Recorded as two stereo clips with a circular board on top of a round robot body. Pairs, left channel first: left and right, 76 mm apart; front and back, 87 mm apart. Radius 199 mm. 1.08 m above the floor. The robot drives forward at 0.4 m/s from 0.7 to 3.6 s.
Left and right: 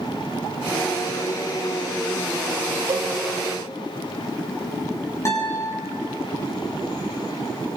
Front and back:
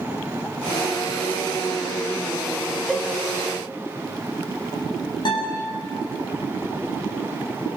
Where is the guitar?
35° left, 9 m.